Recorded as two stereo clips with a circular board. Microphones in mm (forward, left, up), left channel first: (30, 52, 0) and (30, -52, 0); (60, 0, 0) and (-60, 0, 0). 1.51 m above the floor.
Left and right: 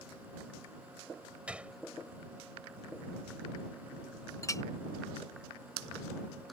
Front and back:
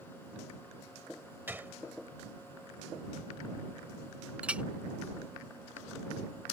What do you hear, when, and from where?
1.5 s a gunshot: 145° right
4.4 s a clink: 110° left